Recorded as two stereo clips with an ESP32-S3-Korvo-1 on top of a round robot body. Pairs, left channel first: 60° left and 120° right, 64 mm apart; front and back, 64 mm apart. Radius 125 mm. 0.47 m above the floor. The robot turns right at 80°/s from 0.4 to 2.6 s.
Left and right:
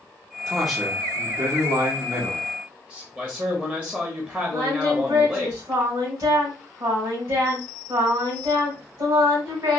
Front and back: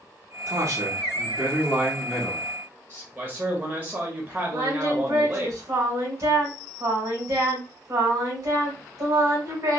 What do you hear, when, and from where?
0.5 s a man speaking: 135° left, 1.2 m; by 3.0 s 50° right, 1.2 m
3.1 s a man speaking: 155° right, 1.3 m
4.5 s singing: 140° right, 2.5 m